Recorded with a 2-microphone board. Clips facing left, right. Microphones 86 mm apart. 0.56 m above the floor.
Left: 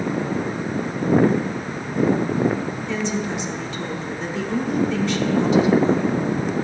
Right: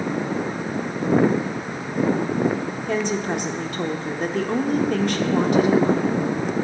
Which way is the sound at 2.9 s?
55° right (ahead or behind).